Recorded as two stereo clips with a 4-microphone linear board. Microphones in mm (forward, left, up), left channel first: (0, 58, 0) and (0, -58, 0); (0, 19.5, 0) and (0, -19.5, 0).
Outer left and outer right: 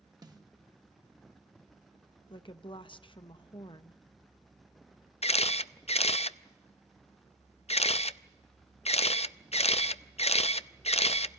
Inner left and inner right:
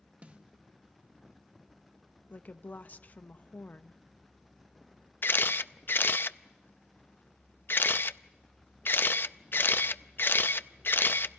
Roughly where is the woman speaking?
Left.